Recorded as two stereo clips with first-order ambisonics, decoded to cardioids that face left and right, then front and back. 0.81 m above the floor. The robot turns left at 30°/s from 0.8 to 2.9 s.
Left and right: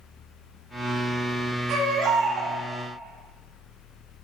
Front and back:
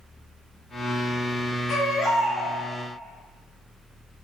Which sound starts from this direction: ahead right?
A baby crying, at 1.7 s.